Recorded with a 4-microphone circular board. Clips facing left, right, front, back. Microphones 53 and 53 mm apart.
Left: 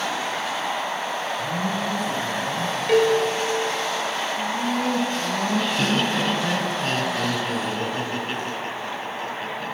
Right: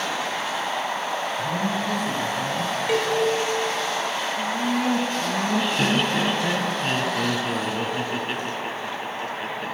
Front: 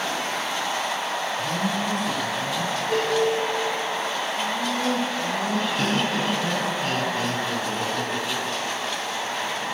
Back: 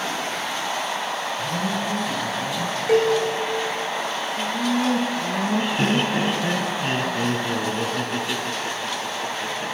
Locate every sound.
1.4 s a man speaking: 75° right, 6 m
2.9 s a cowbell: straight behind, 2.5 m
4.4 s laughter: 160° right, 1.0 m